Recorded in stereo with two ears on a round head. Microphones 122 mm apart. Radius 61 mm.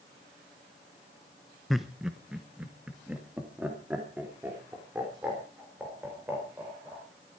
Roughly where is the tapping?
I don't hear tapping.